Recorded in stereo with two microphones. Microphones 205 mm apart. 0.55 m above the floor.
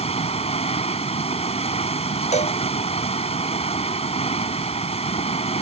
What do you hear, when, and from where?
0.0 s running water: 30° left (ahead or behind)
2.3 s a cowbell: 30° left (ahead or behind)